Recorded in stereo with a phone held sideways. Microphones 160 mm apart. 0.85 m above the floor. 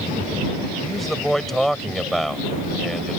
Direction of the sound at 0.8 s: Centre (ahead or behind).